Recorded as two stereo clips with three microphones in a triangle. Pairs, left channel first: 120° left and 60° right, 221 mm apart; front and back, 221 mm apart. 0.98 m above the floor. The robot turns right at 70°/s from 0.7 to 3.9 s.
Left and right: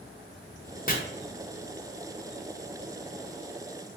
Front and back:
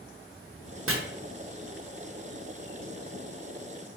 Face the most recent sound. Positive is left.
turn(degrees=20)